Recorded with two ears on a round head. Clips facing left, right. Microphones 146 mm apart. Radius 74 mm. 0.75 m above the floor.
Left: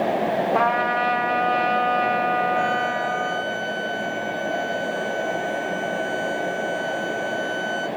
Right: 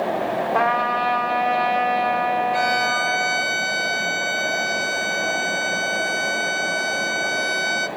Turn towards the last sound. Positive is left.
turn(degrees=-80)